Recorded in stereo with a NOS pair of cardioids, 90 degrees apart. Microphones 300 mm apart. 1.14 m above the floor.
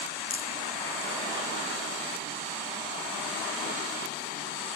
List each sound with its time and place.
0.3 s a rattle: 20° left, 5.5 m